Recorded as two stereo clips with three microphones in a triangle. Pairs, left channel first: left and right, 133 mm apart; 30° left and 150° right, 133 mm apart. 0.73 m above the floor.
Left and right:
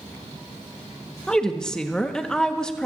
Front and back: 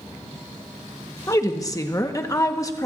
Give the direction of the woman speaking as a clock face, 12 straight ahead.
12 o'clock.